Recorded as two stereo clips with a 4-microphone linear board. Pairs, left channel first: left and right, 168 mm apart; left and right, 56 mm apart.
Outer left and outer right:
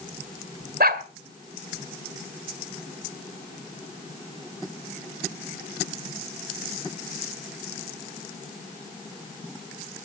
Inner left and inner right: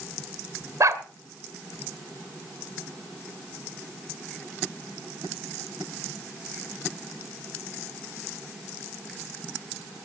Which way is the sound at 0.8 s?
70° right (ahead or behind).